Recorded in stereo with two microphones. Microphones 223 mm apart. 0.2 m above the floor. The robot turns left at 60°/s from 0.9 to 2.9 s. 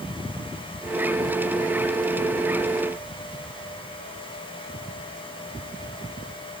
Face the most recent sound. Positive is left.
No sound to turn to.